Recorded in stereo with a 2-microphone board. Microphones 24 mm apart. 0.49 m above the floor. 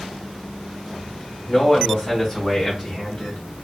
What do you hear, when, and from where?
1.5 s a man speaking: 30° left (ahead or behind), 2.5 m; by 3.4 s 45° left (ahead or behind), 3.5 m